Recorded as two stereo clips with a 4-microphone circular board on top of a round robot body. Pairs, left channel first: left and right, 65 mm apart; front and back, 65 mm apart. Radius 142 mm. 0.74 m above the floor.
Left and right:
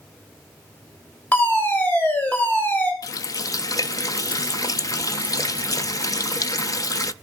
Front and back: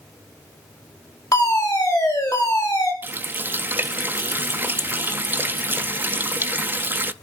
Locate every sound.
1.3 s a fire alarm: 30° left, 7.5 m
3.0 s a running tap: 120° left, 0.7 m